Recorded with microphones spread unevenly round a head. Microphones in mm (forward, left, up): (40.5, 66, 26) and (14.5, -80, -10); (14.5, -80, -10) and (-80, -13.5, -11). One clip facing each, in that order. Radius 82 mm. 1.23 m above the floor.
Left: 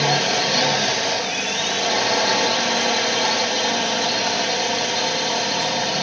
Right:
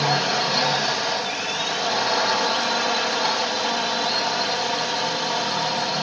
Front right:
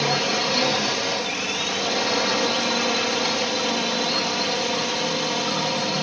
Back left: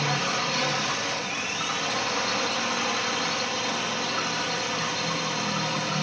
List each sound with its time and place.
0.0 s a drone: 15° left